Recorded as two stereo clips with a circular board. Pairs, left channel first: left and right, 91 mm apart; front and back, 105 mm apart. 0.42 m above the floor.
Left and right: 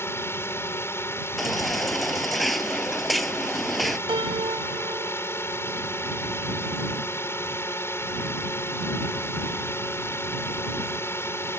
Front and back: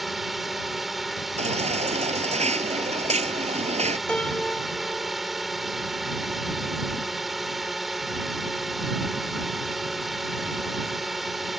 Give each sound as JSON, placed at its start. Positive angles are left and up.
{"t": 0.0, "sound": "a drone", "azimuth_deg": 95}
{"t": 1.4, "sound": "a baby crying", "azimuth_deg": 180}
{"t": 4.1, "sound": "a piano", "azimuth_deg": -80}